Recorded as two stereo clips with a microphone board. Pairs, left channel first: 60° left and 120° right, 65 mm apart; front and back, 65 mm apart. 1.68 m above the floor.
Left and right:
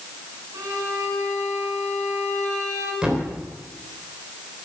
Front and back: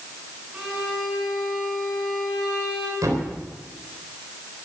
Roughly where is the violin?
Right.